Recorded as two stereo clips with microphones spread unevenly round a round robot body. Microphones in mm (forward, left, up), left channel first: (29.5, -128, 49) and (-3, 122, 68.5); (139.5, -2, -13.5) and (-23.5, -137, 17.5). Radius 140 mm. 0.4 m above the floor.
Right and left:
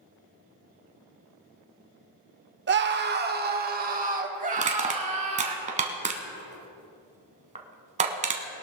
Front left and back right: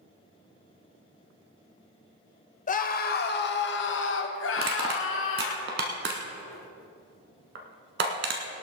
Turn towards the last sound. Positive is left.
turn(degrees=160)